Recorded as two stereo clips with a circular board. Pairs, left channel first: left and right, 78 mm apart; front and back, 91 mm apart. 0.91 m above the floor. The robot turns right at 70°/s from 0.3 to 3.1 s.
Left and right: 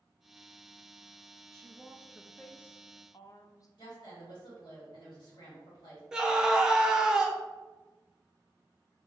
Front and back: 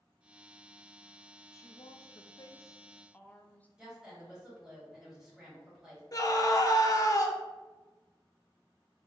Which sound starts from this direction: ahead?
A scream, at 6.1 s.